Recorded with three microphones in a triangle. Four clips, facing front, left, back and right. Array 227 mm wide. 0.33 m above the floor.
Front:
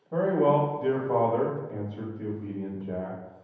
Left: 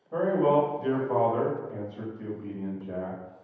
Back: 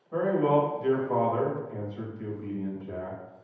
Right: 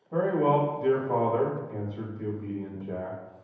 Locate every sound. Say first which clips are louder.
0.1 s a man speaking: left 1 dB, front 1 dB; 5° right, 1.0 m